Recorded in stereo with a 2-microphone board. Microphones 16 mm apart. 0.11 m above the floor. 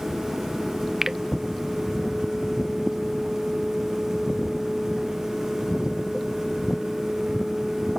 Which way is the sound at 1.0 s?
25° right (ahead or behind).